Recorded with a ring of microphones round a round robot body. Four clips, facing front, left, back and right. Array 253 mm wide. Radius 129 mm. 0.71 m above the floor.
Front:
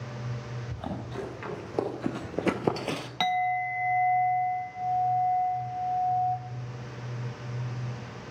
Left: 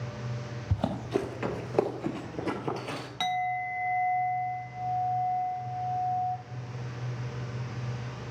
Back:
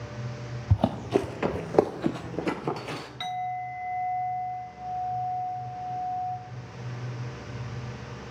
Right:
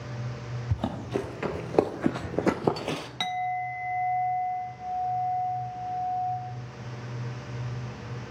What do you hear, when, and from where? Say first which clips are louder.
0.7 s running footsteps: left 1 dB, back 12 dB; 170° left, 1.5 m; by 3.1 s 45° right, 1.3 m
3.2 s a clink: left 1 dB, front 5 dB; 5° right, 0.8 m